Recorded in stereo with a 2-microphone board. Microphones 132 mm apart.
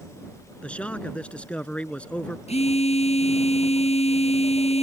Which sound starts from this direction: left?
A phone buzzing, at 2.5 s.